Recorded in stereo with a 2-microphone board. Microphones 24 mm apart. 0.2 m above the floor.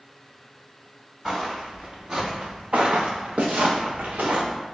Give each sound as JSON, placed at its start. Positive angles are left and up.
{"t": 1.2, "sound": "footsteps", "side_deg": -15, "distance_m": 1.4}